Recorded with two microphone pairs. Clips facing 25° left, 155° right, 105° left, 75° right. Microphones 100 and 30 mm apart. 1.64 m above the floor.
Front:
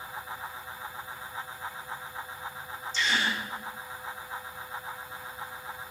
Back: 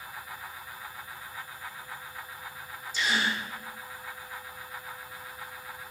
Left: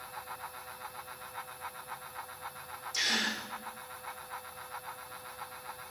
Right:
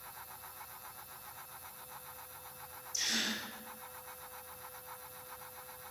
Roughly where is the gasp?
Behind left.